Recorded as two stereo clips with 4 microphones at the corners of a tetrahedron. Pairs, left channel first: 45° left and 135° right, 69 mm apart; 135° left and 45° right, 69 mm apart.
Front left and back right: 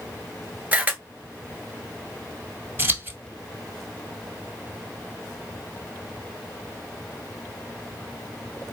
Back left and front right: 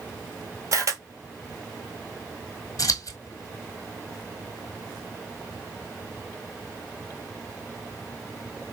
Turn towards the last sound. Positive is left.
turn(degrees=165)